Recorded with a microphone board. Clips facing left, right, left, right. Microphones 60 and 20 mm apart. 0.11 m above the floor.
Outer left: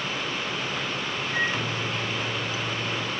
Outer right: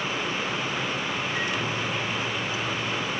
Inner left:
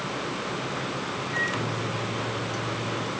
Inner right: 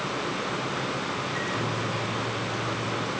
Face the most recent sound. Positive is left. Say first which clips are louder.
# outer left 1 dB, inner left 1 dB
turn(degrees=35)  # may be behind; listen again after turning